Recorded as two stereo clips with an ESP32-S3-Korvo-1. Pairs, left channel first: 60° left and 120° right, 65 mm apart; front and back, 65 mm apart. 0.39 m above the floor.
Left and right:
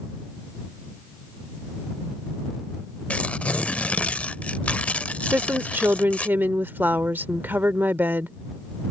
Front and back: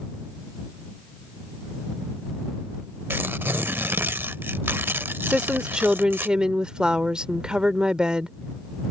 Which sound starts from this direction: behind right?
A woman speaking, at 5.3 s.